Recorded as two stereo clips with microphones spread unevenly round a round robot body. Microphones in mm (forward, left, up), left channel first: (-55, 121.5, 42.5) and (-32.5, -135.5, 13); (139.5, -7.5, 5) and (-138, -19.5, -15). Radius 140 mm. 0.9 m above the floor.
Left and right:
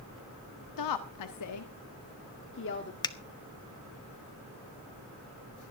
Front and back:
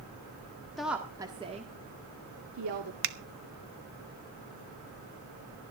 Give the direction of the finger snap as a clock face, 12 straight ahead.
6 o'clock.